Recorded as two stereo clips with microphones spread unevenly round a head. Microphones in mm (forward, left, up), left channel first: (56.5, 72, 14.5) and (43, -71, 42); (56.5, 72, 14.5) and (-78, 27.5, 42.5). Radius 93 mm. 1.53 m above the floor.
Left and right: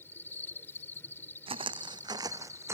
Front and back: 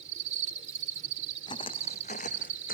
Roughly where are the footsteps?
Ahead right.